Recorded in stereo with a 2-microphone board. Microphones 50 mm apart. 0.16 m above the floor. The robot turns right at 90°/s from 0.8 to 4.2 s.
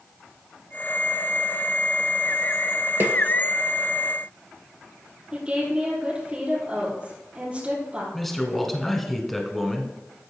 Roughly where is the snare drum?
Right.